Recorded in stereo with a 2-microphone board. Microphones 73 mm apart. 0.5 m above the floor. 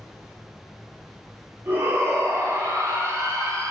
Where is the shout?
30° right (ahead or behind), 2.5 m; by 3.7 s 50° right (ahead or behind), 1.7 m.